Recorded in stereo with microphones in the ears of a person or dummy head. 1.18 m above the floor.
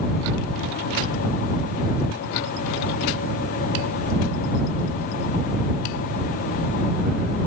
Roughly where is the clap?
No clap in this recording.